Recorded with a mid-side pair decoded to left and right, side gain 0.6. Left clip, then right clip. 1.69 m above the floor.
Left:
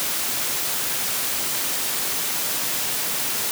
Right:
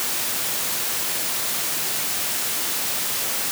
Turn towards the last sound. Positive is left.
No sound to turn to.